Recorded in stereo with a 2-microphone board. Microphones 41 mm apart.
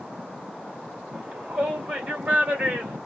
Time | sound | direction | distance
1.1 | a shout | 25° right (ahead or behind) | 1.1 m